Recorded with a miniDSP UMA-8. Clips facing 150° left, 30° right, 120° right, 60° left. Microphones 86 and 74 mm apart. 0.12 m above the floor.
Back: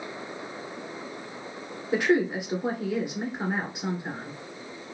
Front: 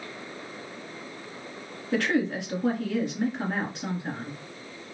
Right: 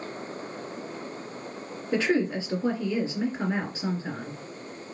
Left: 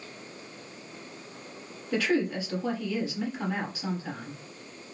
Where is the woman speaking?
160° right, 1.6 m.